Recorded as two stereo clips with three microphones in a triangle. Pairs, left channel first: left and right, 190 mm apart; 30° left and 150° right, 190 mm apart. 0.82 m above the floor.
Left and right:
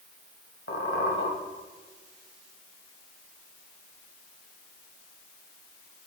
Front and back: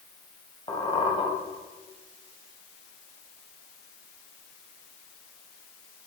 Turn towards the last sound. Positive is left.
turn(degrees=90)